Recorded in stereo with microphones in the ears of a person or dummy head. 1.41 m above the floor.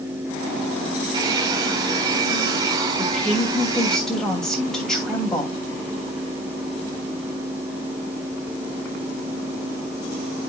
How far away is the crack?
I don't hear a crack.